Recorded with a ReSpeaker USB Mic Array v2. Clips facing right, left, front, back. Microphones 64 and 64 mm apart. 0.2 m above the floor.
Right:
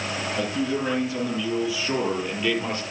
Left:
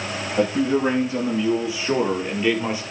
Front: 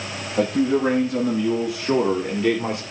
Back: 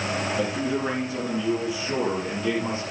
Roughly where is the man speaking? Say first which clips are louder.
Left 8 dB, front 11 dB; ahead left.